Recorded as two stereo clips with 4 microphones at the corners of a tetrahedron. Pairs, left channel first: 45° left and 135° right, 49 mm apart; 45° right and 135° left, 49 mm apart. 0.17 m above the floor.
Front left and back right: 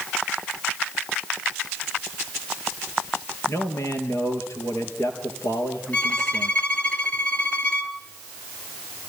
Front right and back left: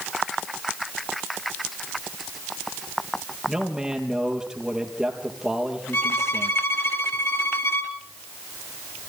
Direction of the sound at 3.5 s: 60° left.